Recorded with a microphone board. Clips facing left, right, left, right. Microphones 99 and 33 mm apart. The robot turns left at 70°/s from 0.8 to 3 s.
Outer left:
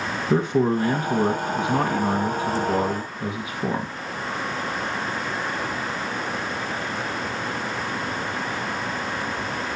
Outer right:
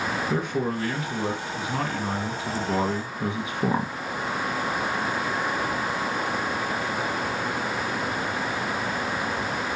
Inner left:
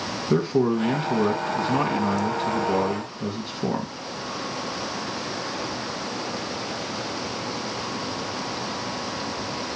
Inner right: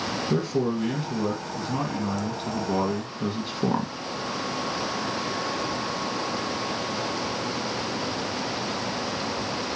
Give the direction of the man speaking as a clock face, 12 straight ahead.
8 o'clock.